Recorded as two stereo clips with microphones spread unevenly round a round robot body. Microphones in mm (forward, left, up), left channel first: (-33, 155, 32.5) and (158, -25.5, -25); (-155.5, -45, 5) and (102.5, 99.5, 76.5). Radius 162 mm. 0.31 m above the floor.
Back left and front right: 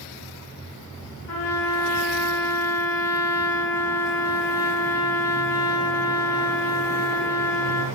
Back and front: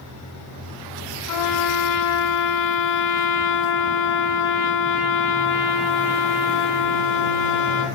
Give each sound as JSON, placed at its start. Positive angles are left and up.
{"t": 1.3, "sound": "a trumpet", "azimuth_deg": -175, "distance_m": 7.0}